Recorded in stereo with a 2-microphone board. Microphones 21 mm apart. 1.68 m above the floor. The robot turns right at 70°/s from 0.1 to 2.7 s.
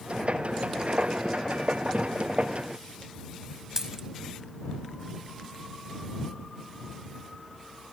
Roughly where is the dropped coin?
Centre.